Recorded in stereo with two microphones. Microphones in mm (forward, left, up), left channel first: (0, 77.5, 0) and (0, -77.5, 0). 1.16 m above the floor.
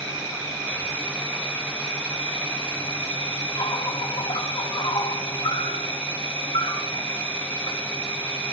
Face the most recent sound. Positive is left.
turn(degrees=40)  # may be behind; listen again after turning